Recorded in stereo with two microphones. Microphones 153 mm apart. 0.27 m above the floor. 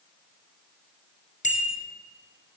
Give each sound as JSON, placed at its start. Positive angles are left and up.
{"t": 1.4, "sound": "a bicycle bell", "side_deg": 55, "distance_m": 3.5}